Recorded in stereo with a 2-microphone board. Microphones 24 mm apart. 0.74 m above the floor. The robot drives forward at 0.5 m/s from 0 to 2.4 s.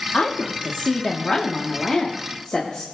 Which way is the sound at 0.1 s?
60° left (ahead or behind).